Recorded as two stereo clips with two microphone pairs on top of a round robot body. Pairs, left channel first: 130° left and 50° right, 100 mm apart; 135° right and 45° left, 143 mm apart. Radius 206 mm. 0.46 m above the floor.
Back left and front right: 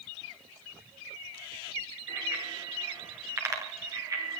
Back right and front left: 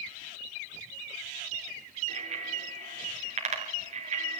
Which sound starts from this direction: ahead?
A bicycle bell, at 2.1 s.